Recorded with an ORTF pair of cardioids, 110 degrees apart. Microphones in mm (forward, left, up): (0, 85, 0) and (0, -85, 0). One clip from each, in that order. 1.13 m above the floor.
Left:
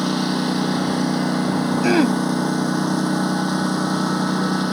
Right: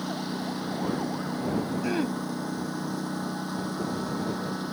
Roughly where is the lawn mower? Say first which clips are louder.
Left 11 dB; ahead left.